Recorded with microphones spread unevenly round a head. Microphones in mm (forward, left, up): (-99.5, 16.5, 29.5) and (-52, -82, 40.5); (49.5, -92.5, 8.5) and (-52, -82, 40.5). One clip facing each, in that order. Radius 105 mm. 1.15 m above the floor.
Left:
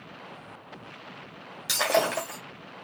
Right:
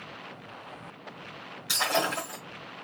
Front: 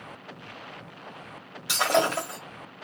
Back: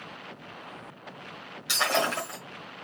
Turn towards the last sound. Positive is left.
turn(degrees=70)